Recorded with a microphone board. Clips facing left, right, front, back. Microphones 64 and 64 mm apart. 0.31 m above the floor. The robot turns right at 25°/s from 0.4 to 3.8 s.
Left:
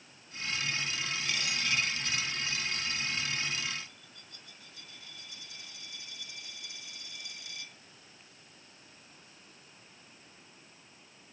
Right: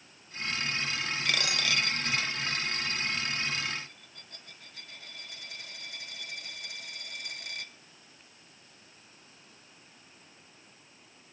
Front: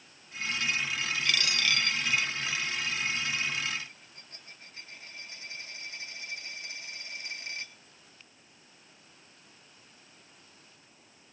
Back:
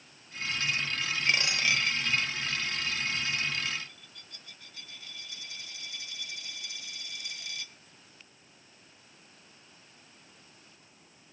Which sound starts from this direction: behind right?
A dropped coin, at 1.2 s.